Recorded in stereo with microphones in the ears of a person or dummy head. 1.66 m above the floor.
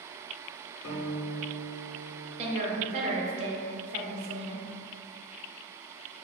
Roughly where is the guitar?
Left.